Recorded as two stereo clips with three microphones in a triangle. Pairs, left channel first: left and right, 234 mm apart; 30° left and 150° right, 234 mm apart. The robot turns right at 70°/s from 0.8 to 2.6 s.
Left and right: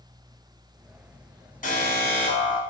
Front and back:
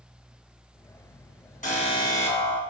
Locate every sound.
1.6 s an alarm: 60° left, 2.5 m; by 2.6 s 130° left, 2.5 m